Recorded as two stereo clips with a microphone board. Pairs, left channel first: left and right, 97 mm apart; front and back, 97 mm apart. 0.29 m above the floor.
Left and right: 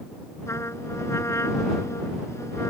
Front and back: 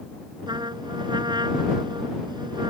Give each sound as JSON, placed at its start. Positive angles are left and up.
{"t": 0.5, "sound": "a trumpet", "azimuth_deg": 145}